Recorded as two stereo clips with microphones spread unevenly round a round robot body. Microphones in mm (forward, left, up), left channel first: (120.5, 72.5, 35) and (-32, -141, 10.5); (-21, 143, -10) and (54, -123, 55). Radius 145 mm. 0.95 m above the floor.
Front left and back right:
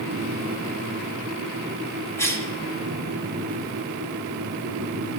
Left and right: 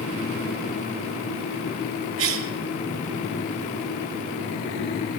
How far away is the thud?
I don't hear a thud.